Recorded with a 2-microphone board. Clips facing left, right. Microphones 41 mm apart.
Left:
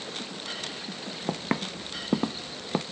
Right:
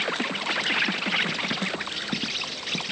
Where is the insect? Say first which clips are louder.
Right 10 dB; 80° right.